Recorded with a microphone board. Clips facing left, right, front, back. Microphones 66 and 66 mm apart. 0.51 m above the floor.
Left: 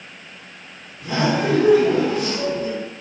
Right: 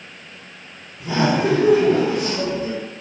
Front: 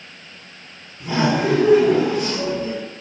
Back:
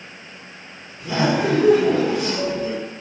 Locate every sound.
1.0 s laughter: 40° right, 1.8 m